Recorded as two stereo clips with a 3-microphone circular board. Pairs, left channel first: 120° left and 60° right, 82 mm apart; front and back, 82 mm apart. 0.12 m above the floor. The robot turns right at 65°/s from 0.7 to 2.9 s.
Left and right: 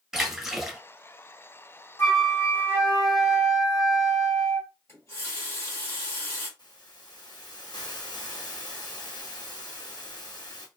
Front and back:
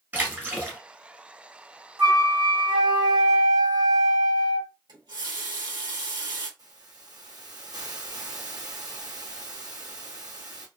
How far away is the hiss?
About 1.5 m.